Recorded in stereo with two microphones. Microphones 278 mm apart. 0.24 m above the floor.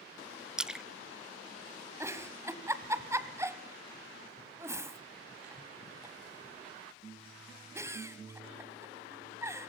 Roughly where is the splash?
Centre.